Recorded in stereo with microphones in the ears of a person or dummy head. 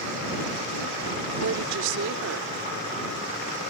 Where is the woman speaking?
70° right (ahead or behind); by 2.5 s 75° right (ahead or behind).